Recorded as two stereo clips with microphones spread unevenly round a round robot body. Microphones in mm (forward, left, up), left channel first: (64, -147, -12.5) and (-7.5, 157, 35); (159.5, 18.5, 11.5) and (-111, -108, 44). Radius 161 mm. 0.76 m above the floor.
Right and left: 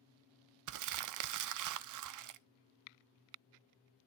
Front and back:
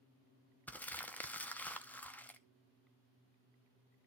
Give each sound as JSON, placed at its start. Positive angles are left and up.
{"t": 0.7, "sound": "crumpling", "azimuth_deg": 100, "distance_m": 0.5}